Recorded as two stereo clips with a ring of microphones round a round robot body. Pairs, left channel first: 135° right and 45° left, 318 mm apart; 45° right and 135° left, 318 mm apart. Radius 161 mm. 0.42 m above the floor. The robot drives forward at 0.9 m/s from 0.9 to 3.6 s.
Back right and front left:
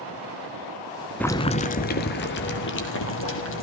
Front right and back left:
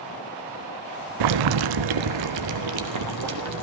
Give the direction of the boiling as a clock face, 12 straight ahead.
7 o'clock.